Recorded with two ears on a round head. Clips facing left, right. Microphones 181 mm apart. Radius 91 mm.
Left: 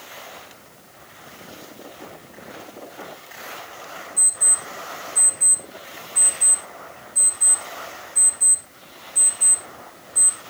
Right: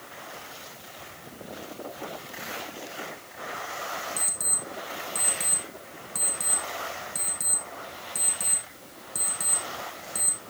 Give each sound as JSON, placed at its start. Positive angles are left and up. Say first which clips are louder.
{"t": 4.2, "sound": "an alarm clock", "louder": "left 1 dB", "side_deg": -70, "distance_m": 4.0}